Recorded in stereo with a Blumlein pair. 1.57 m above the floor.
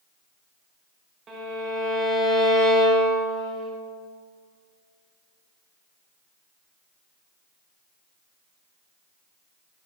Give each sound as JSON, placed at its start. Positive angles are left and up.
{"t": 1.3, "sound": "a violin", "azimuth_deg": -20, "distance_m": 1.8}